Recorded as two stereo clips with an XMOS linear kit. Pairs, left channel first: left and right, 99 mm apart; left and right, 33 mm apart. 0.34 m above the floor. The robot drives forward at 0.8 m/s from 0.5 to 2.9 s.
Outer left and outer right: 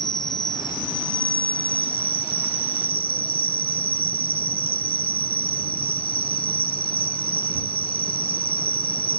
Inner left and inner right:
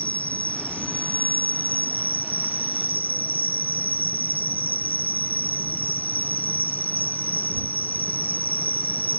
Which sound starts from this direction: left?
An insect, at 0.0 s.